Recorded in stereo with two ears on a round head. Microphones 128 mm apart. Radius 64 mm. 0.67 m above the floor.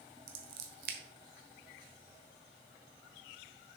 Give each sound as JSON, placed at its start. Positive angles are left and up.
{"t": 0.3, "sound": "scissors", "side_deg": -70, "distance_m": 1.3}